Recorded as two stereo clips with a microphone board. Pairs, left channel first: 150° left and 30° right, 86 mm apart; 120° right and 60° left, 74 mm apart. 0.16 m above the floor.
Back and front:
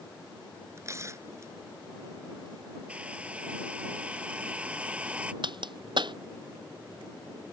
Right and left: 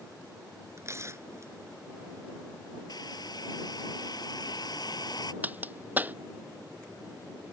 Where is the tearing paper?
20° left.